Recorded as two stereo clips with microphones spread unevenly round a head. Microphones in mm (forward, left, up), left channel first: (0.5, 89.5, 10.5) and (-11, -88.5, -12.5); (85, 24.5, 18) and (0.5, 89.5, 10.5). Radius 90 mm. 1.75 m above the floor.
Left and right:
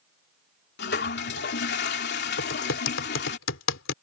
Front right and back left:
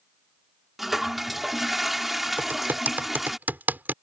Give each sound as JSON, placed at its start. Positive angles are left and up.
{"t": 0.8, "sound": "a toilet flushing", "azimuth_deg": 55}
{"t": 2.4, "sound": "typing on a keyboard", "azimuth_deg": 70}